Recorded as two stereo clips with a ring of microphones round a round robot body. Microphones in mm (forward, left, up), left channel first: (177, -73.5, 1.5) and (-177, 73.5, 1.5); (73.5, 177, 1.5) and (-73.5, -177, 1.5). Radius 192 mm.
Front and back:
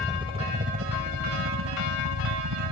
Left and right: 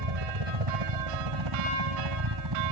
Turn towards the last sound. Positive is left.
turn(degrees=-155)